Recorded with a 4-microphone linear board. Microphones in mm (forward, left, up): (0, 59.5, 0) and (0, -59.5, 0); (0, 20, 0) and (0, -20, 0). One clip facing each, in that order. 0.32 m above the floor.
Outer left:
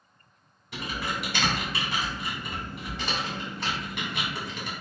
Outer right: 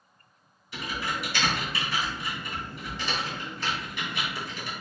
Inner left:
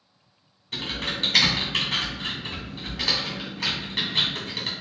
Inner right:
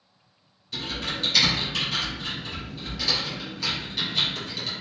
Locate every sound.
0.7 s typing on a keyboard: 65° left (ahead or behind), 1.5 m